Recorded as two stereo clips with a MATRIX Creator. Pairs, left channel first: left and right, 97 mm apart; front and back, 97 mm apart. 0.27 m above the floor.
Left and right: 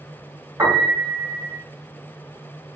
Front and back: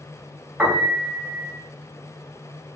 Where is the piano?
115° right, 1.7 m.